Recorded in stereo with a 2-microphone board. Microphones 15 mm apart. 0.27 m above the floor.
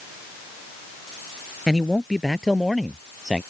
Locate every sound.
1.7 s a man speaking: 5° right (ahead or behind)